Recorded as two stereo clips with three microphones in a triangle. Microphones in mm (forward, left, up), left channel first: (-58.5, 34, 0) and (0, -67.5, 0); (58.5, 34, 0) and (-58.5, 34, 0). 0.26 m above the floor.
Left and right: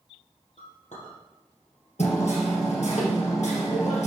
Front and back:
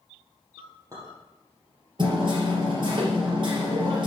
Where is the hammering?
135° left, 3.5 m.